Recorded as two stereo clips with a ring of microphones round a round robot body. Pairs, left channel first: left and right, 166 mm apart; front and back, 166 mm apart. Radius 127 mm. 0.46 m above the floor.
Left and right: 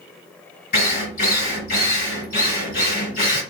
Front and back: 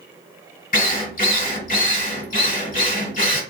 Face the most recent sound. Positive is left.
turn(degrees=35)